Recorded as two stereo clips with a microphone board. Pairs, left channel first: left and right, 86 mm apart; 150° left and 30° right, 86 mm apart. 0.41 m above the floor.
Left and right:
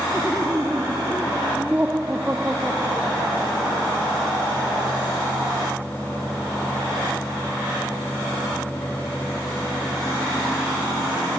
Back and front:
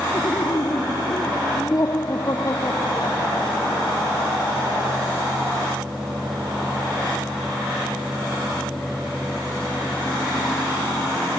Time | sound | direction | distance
0.1 | laughter | 160° right | ?